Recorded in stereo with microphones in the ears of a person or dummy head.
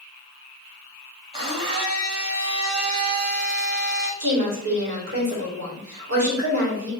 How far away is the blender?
About 1.4 m.